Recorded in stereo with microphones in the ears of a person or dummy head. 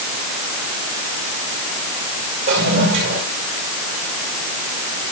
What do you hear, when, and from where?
2.5 s a toilet flushing: 55° right (ahead or behind), 5 m